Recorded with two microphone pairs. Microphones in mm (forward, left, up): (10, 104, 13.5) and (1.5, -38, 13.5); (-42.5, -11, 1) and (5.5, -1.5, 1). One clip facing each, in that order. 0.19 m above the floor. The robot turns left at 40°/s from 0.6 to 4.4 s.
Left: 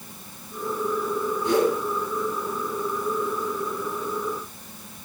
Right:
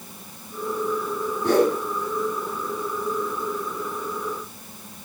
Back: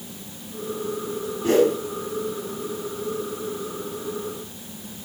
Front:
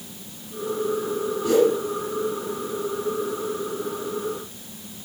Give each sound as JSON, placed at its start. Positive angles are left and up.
{"t": 1.4, "sound": "a whoosh", "azimuth_deg": -115, "distance_m": 4.5}